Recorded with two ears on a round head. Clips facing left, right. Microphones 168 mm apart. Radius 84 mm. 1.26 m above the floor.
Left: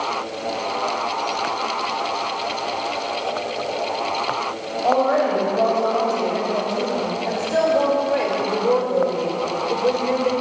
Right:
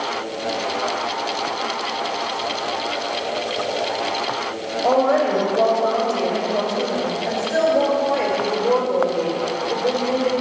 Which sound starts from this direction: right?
A woman speaking, at 4.8 s.